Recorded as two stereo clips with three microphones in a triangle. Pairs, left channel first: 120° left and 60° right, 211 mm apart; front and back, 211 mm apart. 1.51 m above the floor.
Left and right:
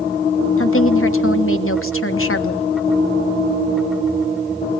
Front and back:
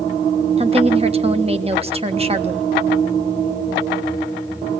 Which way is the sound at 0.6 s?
115° left.